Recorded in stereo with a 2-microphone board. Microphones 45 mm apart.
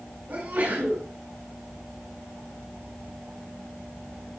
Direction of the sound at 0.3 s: 40° right (ahead or behind).